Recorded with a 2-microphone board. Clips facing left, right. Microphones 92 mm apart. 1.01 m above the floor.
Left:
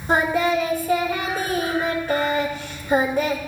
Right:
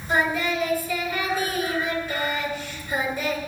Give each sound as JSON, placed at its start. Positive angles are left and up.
{"t": 0.1, "sound": "singing", "side_deg": 60, "distance_m": 2.5}